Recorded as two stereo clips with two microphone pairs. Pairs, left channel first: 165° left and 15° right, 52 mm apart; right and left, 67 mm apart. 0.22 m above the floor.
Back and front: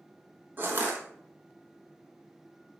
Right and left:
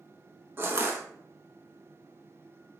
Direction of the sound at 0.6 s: 35° left.